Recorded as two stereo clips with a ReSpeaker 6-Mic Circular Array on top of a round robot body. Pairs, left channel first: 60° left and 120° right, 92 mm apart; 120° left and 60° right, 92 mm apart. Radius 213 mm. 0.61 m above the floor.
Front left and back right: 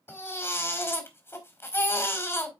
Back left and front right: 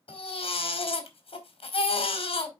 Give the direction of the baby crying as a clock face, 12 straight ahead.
8 o'clock.